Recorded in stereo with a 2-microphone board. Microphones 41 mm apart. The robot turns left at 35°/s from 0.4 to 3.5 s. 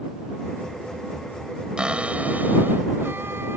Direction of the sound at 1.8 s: 20° right.